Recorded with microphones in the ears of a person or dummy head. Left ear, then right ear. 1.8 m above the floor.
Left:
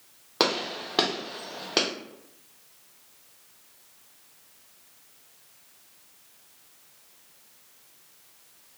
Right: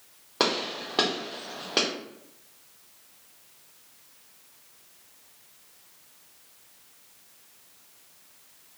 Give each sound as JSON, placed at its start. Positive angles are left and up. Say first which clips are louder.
{"t": 0.4, "sound": "a gunshot", "louder": "left 1 dB", "side_deg": 10, "distance_m": 0.7}